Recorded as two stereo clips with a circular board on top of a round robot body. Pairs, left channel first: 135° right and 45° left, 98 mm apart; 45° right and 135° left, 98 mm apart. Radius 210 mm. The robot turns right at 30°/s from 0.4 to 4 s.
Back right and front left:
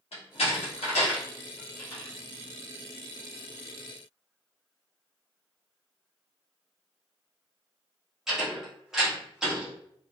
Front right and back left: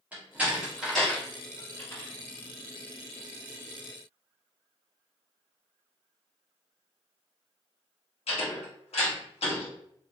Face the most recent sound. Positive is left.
turn(degrees=-40)